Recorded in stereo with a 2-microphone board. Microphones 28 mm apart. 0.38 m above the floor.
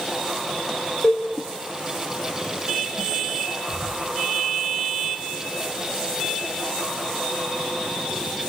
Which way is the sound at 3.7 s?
20° left (ahead or behind).